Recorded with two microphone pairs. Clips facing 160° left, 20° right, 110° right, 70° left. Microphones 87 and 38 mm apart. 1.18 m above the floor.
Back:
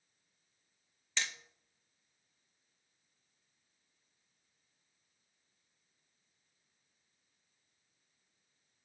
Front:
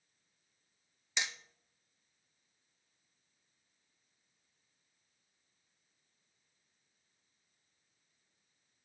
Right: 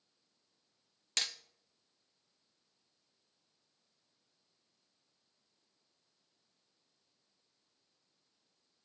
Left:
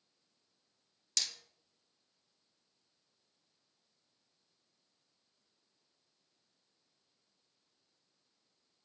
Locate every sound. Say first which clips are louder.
1.2 s hammering: front 1 dB, right 3 dB; 80° right, 0.6 m